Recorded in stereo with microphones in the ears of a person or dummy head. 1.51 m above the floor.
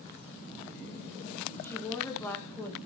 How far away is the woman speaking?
About 2.5 m.